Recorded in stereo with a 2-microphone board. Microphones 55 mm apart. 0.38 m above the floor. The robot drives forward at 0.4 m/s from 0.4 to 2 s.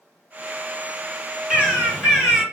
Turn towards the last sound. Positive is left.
turn(degrees=-5)  # may be behind; listen again after turning